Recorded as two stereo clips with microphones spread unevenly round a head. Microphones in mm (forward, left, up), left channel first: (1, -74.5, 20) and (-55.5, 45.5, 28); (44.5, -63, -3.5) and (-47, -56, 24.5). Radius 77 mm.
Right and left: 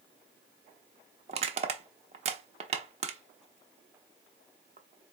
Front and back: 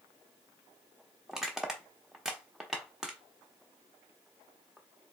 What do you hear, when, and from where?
1.3 s crushing: 110° left, 0.5 m